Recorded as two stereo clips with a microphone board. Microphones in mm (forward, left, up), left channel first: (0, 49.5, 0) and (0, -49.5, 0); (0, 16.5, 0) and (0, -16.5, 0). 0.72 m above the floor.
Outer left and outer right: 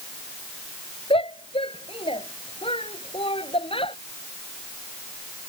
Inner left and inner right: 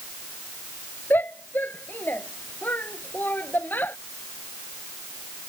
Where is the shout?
70° left (ahead or behind).